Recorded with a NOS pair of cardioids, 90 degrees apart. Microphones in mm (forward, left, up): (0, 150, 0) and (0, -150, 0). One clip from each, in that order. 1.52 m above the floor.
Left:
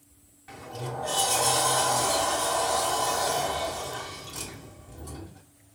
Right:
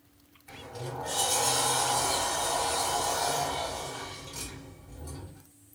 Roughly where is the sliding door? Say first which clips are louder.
Left 3 dB; ahead left.